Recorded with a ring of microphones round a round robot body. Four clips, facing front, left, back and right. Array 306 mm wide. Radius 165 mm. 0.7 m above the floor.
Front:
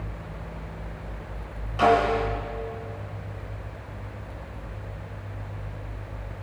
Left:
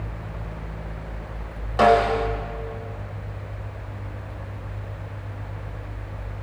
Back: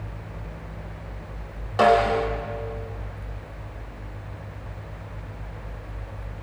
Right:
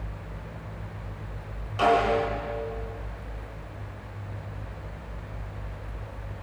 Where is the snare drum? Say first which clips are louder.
Left 5 dB, back 2 dB; 135° left, 4 m.